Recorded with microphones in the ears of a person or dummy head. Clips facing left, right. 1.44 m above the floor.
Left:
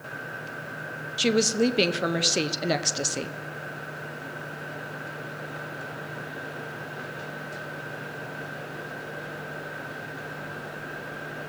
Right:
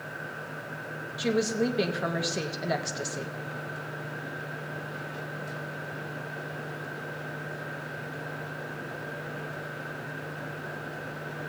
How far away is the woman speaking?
About 0.7 m.